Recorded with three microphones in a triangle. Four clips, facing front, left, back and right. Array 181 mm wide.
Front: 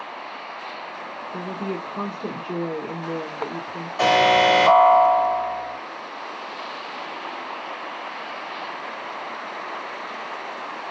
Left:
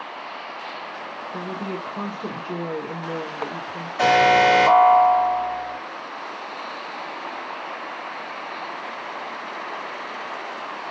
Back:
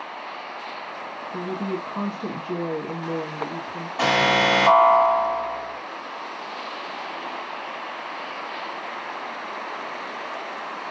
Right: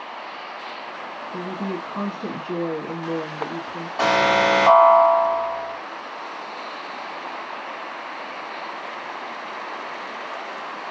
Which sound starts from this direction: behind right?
A woman speaking, at 1.3 s.